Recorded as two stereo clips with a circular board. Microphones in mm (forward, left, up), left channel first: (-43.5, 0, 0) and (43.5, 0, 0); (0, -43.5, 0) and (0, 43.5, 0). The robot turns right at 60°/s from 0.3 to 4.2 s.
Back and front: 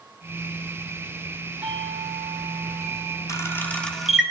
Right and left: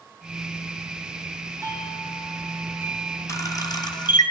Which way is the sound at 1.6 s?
70° left.